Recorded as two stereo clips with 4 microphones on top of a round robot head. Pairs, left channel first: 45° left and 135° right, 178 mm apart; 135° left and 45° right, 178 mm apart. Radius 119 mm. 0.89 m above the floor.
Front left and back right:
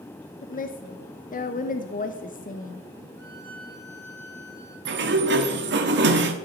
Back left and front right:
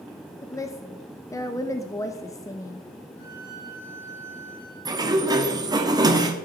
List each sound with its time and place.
0.4 s a woman speaking: 70° left, 1.0 m
3.2 s a violin: 120° left, 4.5 m
4.8 s a sliding door: 115° right, 1.4 m